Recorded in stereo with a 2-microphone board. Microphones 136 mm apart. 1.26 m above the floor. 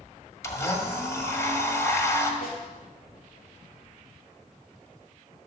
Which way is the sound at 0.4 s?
20° left (ahead or behind).